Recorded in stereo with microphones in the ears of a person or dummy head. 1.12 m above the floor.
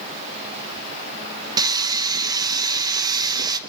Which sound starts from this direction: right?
Sawing, at 1.6 s.